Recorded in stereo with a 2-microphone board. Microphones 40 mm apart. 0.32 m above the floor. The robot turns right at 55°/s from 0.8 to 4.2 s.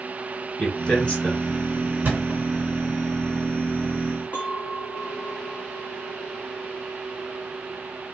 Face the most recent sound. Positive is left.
turn(degrees=50)  # may be behind; listen again after turning